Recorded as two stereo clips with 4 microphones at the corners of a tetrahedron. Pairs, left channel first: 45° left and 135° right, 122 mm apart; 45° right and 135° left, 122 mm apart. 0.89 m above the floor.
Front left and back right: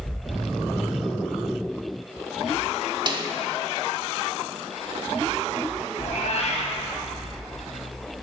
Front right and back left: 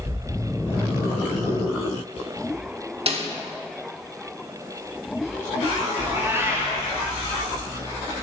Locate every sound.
3.1 s a snare drum: 170° left, 1.4 m
6.0 s a cat meowing: 65° left, 2.5 m